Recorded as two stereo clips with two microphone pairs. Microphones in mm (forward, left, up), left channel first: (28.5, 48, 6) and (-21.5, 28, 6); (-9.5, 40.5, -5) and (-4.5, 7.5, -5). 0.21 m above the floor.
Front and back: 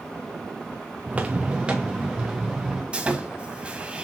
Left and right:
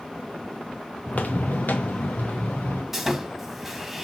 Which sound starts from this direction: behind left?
Footsteps, at 1.1 s.